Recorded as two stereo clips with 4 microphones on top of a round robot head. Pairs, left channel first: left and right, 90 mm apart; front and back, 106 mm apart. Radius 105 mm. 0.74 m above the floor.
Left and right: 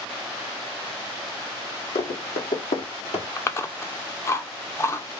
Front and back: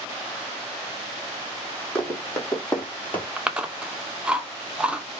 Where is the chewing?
110° left, 0.9 m.